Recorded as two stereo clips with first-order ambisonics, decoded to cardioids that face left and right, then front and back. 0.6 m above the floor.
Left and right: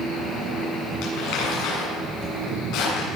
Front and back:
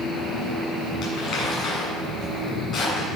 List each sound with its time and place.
1.0 s crumpling: 60° left, 7 m